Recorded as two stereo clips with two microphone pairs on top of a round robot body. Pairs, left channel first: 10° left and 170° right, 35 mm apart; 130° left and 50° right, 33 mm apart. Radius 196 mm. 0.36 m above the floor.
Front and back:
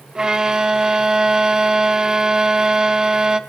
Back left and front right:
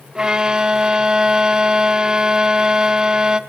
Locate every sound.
0.1 s a violin: 110° right, 1.3 m